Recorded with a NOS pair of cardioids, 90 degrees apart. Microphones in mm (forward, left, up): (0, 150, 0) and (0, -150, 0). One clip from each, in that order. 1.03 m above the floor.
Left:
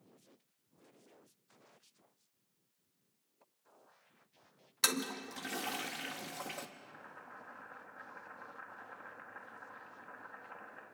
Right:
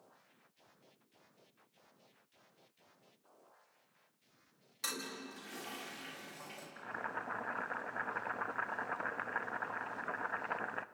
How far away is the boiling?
About 0.6 m.